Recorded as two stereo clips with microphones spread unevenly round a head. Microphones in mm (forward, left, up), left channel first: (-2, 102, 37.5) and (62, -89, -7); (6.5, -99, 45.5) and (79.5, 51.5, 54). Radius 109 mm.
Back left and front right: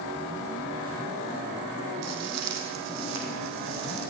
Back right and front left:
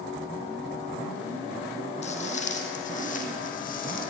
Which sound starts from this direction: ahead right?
Footsteps, at 2.0 s.